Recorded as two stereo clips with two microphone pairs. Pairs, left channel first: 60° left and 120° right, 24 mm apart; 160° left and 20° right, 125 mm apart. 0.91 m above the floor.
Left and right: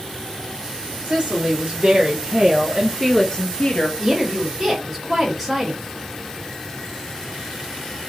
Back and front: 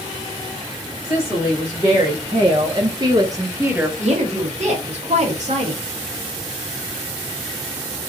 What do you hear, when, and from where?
1.0 s a woman speaking: 85° right, 1.3 m; by 3.9 s 55° left, 0.7 m
4.0 s a woman speaking: 30° right, 1.5 m